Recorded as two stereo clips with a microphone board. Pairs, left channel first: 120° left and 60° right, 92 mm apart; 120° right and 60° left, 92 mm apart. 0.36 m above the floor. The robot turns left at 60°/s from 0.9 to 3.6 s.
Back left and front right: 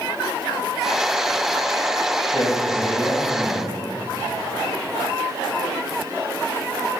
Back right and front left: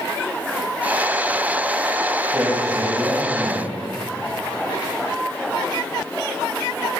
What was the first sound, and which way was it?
A man speaking, 115° left.